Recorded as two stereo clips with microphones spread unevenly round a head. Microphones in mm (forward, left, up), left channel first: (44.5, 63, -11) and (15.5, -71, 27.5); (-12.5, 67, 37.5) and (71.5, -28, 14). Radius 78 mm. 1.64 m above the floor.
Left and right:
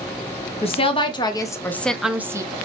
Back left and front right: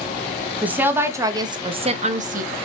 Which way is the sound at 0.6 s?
30° left.